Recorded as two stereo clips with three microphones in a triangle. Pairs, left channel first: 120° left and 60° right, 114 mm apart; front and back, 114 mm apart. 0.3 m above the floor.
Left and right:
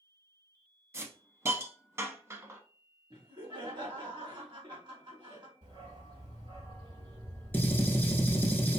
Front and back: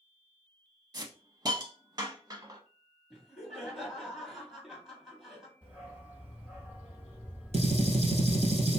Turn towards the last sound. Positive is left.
turn(degrees=-170)